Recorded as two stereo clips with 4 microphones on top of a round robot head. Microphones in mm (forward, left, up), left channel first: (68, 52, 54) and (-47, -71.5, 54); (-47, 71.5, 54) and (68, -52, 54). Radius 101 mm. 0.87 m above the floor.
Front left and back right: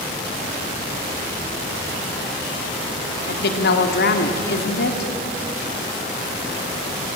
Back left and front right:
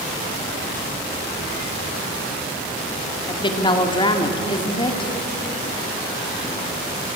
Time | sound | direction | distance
3.3 | a woman speaking | 70° left | 1.9 m